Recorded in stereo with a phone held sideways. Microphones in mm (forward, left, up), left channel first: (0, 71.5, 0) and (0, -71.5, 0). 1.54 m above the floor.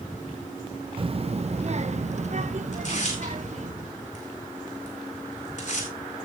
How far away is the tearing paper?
About 4 m.